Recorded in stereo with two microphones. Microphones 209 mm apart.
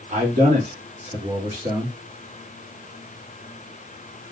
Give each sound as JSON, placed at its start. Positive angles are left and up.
{"t": 0.1, "sound": "a man speaking", "side_deg": -40, "distance_m": 2.5}